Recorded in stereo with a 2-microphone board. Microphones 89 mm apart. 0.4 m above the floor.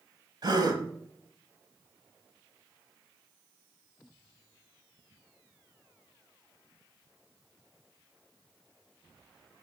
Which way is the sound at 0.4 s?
45° right (ahead or behind).